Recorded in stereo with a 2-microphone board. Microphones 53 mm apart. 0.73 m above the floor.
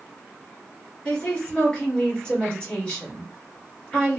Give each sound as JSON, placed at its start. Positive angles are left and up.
{"t": 1.1, "sound": "a woman speaking", "side_deg": 25, "distance_m": 2.0}